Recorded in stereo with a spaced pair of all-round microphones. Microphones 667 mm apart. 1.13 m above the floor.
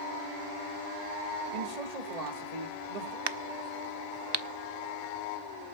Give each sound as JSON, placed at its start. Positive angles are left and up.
{"t": 1.5, "sound": "a man speaking", "side_deg": -70, "distance_m": 2.0}
{"t": 3.3, "sound": "a crack", "side_deg": -40, "distance_m": 0.6}